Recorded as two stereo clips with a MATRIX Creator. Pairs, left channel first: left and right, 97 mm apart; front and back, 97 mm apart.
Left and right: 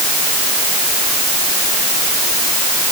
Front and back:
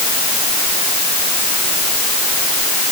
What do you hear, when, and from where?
Only background noise.